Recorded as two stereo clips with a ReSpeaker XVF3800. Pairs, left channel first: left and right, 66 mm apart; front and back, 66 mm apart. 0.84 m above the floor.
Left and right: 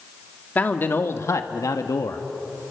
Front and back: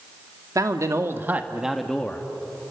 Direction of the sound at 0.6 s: 155° left.